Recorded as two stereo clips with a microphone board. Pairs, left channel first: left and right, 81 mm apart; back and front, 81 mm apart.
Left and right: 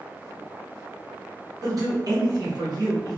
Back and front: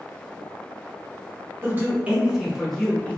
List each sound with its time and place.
1.6 s a man speaking: 60° right, 1.0 m; by 3.2 s 115° right, 0.9 m